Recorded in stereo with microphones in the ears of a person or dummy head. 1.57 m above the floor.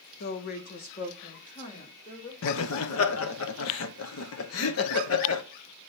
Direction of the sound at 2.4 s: 80° left.